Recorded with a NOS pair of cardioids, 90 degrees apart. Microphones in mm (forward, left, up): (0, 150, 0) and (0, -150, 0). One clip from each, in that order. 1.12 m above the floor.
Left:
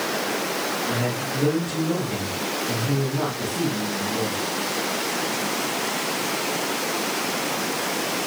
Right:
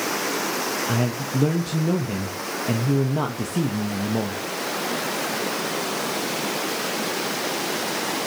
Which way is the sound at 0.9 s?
70° right.